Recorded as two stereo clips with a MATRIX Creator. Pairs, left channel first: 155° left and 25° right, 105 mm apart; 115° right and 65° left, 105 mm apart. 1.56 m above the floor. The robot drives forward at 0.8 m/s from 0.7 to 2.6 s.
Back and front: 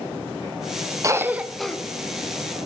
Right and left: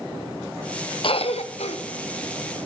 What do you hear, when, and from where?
1.0 s a cough: 80° right, 0.8 m; by 1.8 s 120° right, 0.9 m